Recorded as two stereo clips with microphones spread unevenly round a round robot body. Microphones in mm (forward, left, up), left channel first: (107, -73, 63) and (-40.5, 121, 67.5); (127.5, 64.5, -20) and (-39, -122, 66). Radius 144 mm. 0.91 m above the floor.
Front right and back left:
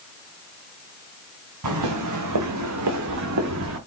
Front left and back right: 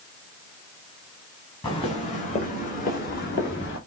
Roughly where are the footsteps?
Behind left.